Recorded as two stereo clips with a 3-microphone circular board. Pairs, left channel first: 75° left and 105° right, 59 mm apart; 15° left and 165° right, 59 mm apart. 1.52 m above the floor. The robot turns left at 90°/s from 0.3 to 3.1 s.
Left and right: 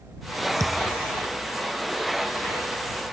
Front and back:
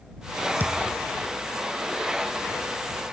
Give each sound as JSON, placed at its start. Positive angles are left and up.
{"t": 0.6, "sound": "a thud", "azimuth_deg": -110}